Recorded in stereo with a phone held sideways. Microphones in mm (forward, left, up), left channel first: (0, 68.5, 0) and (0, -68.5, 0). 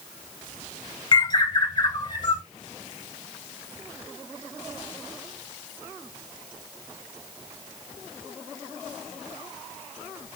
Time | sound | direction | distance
1.1 | a bird | 30° left (ahead or behind) | 2.5 m